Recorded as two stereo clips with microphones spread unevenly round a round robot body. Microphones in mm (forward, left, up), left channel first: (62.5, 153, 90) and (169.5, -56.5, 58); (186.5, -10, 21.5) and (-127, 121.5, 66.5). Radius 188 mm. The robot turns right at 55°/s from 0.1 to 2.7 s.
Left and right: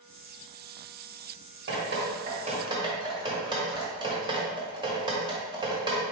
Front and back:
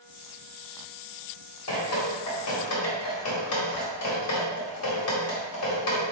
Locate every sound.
1.7 s dripping: 55° right, 1.5 m; by 6.0 s straight ahead, 1.5 m